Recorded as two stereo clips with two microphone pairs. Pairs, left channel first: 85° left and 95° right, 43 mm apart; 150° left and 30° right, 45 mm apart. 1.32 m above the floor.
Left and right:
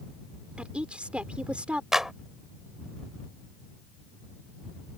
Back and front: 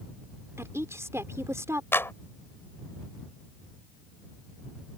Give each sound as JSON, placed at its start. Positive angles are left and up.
{"t": 0.6, "sound": "a woman speaking", "azimuth_deg": -35}
{"t": 1.9, "sound": "a clap", "azimuth_deg": -175}